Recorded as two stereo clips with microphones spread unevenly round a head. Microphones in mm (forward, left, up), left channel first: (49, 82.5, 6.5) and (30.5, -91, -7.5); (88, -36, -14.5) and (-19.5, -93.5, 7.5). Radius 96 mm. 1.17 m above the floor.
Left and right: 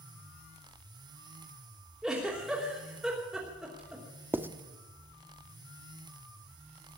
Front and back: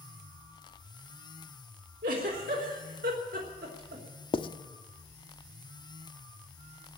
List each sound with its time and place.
2.0 s a giggle: 175° left, 3 m
4.3 s writing: 15° right, 0.8 m